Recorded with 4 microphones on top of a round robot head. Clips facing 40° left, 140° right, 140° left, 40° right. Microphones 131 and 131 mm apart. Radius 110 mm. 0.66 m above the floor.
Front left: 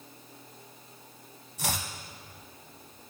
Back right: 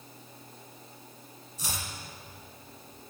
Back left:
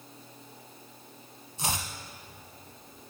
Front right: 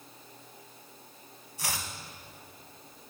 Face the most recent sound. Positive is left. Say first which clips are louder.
# front left 5 dB, back left 4 dB
turn(degrees=75)